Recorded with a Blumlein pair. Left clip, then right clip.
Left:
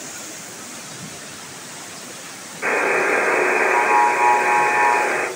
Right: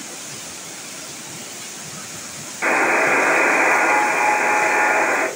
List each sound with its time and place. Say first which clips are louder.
2.6 s a buzzer: right 2 dB; 20° right, 1.4 m